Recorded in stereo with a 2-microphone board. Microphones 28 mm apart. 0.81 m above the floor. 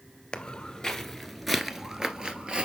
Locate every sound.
0.3 s footsteps: 30° left (ahead or behind), 1.0 m; by 2.7 s 40° right (ahead or behind), 1.1 m